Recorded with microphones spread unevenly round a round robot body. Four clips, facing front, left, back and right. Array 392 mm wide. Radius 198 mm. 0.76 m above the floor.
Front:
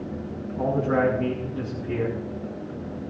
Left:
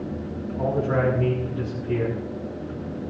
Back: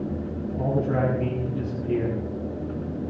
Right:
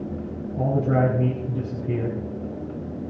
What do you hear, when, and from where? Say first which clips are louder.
0.6 s a man speaking: right 1 dB, front 2 dB; 95° right, 5.5 m